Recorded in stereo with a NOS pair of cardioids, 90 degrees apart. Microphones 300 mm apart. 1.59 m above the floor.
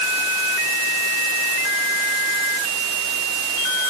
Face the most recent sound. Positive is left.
No sound to turn to.